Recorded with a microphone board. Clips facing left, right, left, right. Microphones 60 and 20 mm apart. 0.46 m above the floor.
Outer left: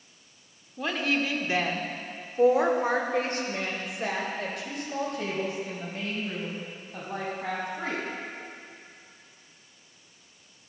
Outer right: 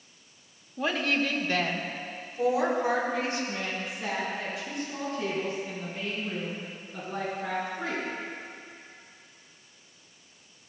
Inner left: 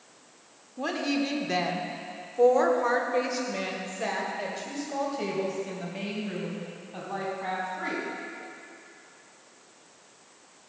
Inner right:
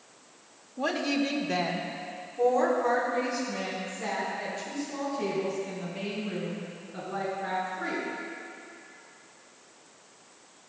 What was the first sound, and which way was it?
A woman speaking, 5° right (ahead or behind).